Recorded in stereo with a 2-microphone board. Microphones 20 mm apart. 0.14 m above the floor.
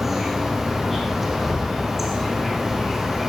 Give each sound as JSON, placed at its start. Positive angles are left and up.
{"t": 0.0, "sound": "an insect", "side_deg": -10, "distance_m": 5.5}